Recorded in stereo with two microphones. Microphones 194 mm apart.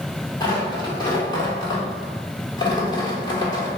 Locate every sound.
0.4 s tearing paper: 20° left (ahead or behind), 1.3 m